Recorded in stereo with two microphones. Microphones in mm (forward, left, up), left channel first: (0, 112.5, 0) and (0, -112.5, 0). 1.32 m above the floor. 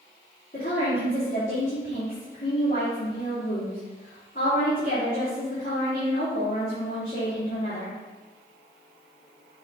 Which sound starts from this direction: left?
A woman speaking, at 0.5 s.